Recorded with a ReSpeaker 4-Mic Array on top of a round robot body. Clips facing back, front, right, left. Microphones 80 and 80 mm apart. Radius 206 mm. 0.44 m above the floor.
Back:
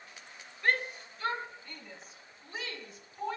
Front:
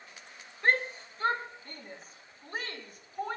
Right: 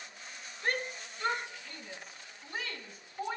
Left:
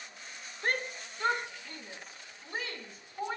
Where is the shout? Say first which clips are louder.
Front 2 dB, left 1 dB; 55° left, 2.5 m; by 3.4 s 35° left, 4.5 m.